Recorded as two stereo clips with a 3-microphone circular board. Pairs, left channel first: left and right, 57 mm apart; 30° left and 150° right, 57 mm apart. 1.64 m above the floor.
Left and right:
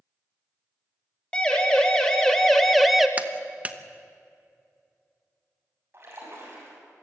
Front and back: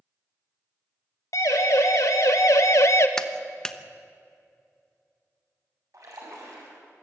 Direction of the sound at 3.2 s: 45° right.